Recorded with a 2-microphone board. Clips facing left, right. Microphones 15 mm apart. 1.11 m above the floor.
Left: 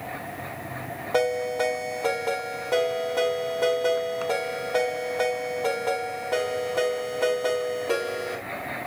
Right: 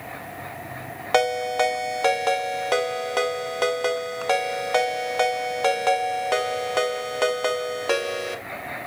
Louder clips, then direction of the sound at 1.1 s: Right 3 dB; 65° right (ahead or behind).